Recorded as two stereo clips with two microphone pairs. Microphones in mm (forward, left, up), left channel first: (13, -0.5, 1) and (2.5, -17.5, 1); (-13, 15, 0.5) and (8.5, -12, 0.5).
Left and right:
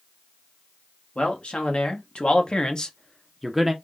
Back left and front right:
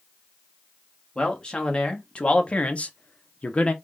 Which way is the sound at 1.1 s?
65° left.